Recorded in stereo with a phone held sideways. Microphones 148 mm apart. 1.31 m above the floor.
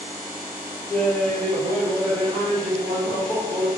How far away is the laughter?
About 1.7 m.